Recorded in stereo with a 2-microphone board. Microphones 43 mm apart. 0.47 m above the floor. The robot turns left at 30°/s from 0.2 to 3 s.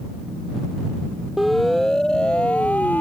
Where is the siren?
5° right (ahead or behind); by 3.0 s 40° left (ahead or behind).